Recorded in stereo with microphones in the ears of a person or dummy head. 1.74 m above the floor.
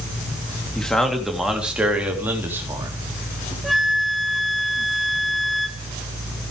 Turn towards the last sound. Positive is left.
turn(degrees=0)  # may be behind; listen again after turning